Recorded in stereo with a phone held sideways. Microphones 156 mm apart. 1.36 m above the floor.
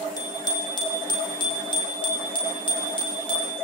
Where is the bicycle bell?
25° left (ahead or behind), 5 m; by 3.5 s 35° left (ahead or behind), 8 m.